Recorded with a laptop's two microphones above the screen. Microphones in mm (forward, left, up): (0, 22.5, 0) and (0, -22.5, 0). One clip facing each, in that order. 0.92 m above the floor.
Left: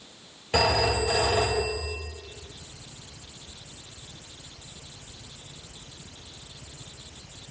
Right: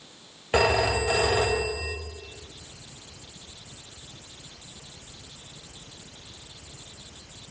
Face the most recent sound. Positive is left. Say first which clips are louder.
# right 1 dB
turn(degrees=-25)  # may be behind; listen again after turning